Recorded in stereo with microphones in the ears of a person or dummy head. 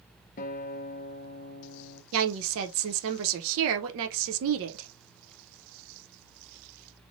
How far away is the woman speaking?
About 0.8 m.